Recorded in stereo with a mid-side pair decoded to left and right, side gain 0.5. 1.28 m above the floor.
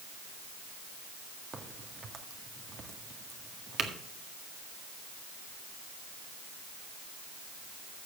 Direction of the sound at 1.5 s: 40° right.